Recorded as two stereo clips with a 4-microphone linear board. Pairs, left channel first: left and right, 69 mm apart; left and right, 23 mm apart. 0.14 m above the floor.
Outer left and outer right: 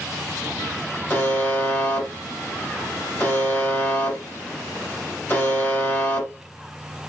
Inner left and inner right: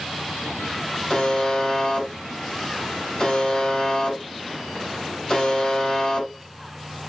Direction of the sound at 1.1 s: 25° left (ahead or behind).